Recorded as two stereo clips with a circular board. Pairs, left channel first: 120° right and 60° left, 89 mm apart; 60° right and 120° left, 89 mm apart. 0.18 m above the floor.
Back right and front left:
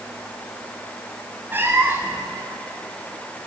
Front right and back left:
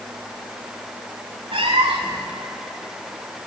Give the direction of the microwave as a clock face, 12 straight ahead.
No microwave in this recording.